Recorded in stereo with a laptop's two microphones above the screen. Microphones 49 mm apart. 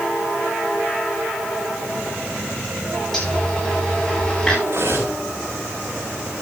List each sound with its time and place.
3.1 s a zipper: 5° left (ahead or behind), 8.5 m
4.7 s cutlery clinking: 60° right (ahead or behind), 3.5 m